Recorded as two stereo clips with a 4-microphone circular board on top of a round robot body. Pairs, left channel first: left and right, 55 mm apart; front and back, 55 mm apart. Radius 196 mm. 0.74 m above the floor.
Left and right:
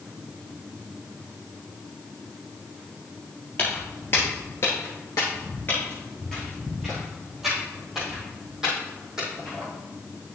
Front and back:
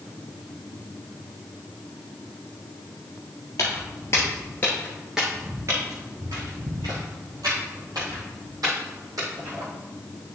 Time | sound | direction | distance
3.6 | footsteps | 30° left | 1.3 m